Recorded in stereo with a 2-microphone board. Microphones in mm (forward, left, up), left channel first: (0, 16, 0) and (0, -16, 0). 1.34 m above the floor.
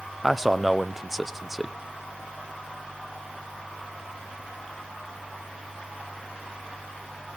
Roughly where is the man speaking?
Centre.